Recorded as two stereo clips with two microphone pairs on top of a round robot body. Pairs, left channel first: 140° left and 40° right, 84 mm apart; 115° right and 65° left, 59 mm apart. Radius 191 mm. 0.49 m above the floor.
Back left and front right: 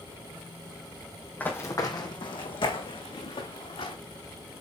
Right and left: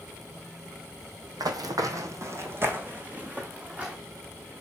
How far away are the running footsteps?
About 1.1 m.